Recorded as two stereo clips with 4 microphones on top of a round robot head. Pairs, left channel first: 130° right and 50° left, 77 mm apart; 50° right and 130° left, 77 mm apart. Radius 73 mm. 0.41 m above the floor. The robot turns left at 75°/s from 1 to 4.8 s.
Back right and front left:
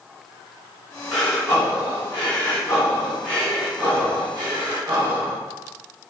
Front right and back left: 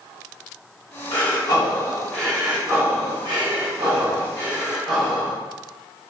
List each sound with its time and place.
1.1 s breathing: 45° right, 1.8 m; by 5.4 s 35° left, 1.8 m